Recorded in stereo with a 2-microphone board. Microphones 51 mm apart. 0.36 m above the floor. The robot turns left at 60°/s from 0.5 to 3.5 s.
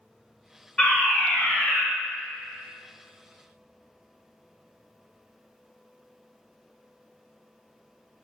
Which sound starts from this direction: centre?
A fire alarm, at 0.8 s.